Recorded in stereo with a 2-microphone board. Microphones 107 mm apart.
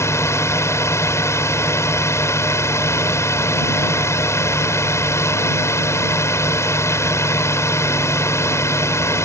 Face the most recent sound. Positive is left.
turn(degrees=25)  # may be behind; listen again after turning